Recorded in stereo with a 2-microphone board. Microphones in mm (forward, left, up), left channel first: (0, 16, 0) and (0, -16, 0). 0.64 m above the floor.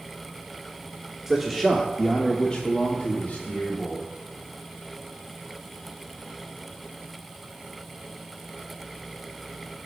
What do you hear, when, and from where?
1.3 s a man speaking: 10° right (ahead or behind), 1.2 m; by 4.0 s 60° left (ahead or behind), 1.4 m